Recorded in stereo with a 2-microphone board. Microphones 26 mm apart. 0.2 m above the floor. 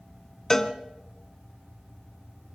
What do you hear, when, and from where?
0.5 s a cowbell: 20° left (ahead or behind), 1.0 m